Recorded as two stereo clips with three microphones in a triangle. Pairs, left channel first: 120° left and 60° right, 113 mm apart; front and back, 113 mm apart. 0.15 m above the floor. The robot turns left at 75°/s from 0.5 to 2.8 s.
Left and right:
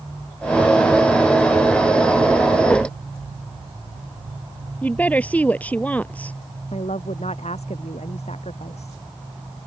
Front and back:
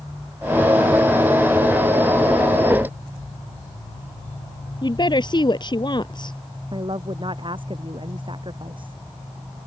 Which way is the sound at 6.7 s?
135° left.